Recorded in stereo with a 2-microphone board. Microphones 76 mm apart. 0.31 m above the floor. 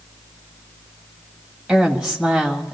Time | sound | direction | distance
1.7 | a woman speaking | 10° right (ahead or behind) | 1.8 m